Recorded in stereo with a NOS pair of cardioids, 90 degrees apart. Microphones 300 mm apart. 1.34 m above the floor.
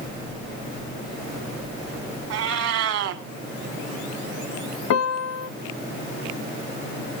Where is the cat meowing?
65° right, 1.6 m.